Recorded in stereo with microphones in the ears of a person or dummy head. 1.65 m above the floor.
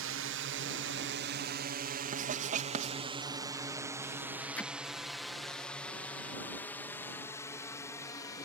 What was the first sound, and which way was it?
A drone, 70° right (ahead or behind).